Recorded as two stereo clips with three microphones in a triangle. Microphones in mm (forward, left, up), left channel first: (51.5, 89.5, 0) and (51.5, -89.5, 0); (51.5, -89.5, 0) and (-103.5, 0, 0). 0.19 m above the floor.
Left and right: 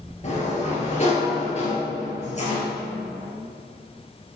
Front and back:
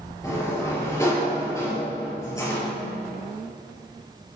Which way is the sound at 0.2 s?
40° left.